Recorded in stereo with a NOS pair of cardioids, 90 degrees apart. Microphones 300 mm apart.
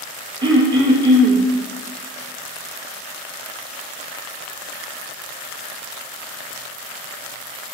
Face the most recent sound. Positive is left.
turn(degrees=-15)